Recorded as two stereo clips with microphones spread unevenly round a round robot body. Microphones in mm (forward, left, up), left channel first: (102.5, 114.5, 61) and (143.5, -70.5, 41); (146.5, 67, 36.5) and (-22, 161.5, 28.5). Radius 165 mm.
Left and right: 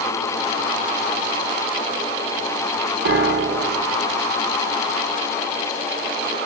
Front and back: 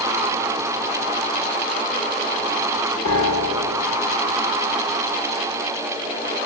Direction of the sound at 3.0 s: 80° right.